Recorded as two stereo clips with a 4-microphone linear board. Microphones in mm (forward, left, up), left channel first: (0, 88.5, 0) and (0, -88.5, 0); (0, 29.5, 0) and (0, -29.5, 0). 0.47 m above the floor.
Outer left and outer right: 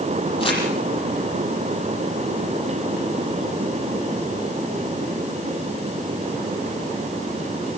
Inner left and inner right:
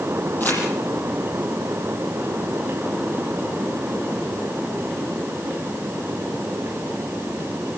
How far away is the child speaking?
I don't hear a child speaking.